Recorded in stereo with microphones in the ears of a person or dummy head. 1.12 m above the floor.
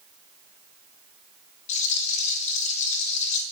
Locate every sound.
1.7 s a rattle: 45° left (ahead or behind), 1.8 m